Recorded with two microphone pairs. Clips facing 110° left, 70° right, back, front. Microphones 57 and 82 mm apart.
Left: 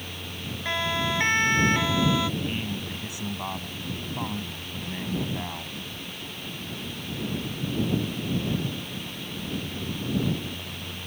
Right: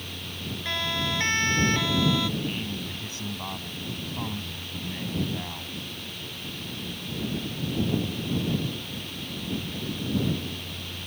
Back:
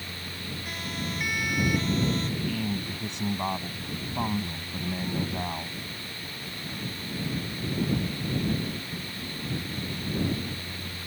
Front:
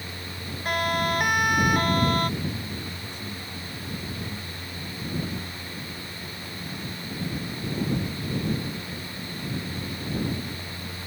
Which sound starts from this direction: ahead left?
A siren, at 0.7 s.